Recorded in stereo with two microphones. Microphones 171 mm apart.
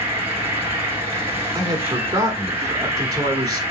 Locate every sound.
0.0 s an insect: 15° right (ahead or behind), 1.1 m
1.6 s a man speaking: 25° right (ahead or behind), 1.2 m